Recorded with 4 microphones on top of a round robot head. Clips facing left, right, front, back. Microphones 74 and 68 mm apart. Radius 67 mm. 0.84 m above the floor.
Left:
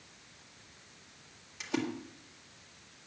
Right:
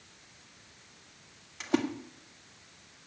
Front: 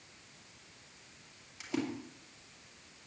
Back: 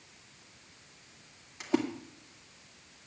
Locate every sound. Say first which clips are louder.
1.6 s a splash: right 5 dB, back 6 dB; 130° right, 2.0 m